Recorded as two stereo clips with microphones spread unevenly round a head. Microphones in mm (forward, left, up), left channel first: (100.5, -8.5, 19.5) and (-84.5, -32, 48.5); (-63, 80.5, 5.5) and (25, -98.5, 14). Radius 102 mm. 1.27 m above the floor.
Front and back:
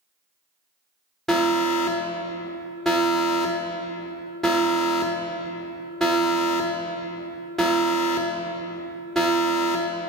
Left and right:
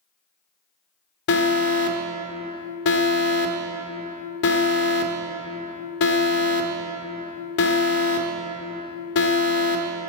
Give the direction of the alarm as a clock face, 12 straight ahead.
9 o'clock.